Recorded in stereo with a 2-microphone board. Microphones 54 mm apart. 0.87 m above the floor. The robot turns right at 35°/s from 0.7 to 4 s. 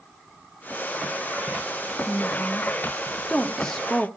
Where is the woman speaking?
35° left (ahead or behind), 1.0 m; by 4.1 s 5° left (ahead or behind), 1.0 m.